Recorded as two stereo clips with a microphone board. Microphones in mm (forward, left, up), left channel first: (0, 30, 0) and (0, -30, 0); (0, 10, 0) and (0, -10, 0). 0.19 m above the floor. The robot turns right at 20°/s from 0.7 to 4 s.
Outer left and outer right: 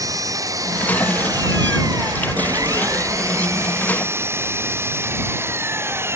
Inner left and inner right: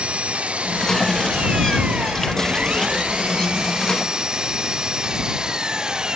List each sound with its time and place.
0.0 s an engine running: 110° right; by 6.2 s 45° right